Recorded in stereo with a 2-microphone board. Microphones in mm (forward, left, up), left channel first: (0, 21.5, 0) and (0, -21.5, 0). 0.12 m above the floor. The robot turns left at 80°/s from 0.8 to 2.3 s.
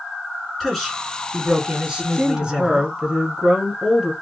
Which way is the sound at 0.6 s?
Centre (ahead or behind).